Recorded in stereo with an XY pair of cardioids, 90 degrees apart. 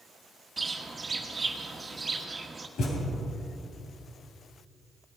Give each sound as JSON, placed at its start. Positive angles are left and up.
{"t": 0.6, "sound": "a bird", "azimuth_deg": -30, "distance_m": 1.4}
{"t": 2.8, "sound": "a thud", "azimuth_deg": 70, "distance_m": 4.0}